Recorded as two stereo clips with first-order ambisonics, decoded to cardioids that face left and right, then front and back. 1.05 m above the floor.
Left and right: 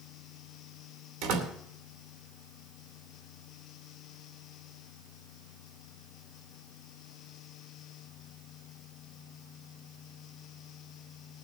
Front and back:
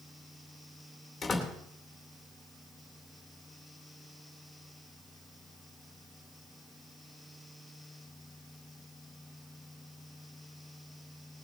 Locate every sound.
1.2 s a door slam: 85° right, 2.5 m